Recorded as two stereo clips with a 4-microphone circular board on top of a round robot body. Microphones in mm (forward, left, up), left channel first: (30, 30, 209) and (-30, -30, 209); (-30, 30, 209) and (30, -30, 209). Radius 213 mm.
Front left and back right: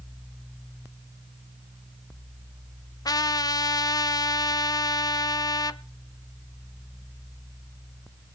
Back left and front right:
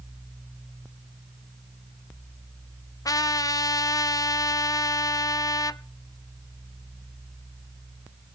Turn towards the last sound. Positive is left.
turn(degrees=90)